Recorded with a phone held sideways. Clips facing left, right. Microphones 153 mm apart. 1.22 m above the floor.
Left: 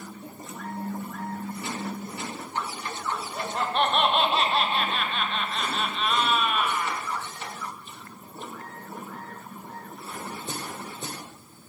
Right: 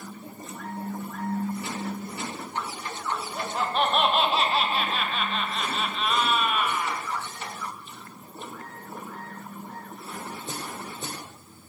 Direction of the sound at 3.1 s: Centre (ahead or behind).